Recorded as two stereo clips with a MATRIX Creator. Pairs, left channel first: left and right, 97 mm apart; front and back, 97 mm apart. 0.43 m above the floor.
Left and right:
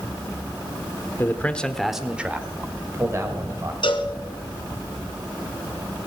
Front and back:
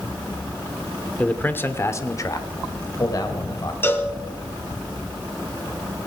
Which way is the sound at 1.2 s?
60° left.